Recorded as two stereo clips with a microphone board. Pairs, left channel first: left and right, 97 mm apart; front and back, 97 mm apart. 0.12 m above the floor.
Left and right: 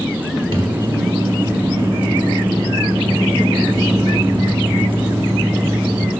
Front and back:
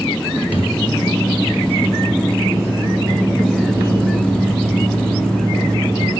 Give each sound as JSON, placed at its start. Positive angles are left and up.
{"t": 0.5, "sound": "a microwave", "azimuth_deg": -110, "distance_m": 2.5}